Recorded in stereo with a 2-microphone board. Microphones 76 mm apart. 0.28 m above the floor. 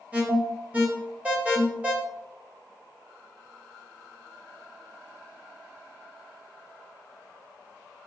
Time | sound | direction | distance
0.1 | an alarm | 20° right (ahead or behind) | 2.0 m